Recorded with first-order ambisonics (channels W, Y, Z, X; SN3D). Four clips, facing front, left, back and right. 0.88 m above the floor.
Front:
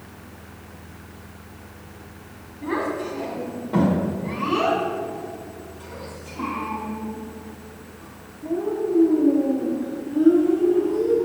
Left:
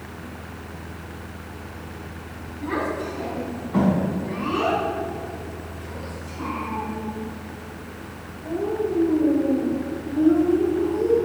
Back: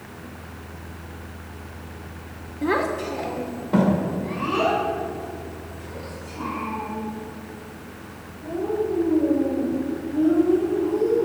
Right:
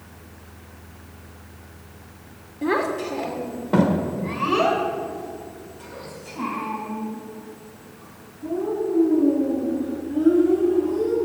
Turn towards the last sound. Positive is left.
turn(degrees=-65)